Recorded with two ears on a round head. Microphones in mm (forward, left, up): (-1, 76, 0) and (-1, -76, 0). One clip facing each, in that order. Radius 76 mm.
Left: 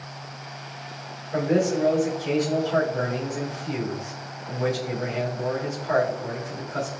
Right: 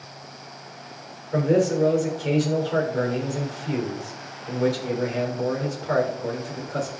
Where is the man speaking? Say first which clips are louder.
Right 2 dB; 45° right (ahead or behind), 6 m.